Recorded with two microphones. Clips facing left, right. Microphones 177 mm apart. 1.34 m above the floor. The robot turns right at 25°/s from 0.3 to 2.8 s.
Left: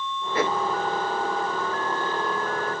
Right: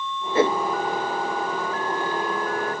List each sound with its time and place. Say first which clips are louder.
0.3 s a whoosh: right 5 dB; 25° right (ahead or behind); by 0.6 s 30° right (ahead or behind)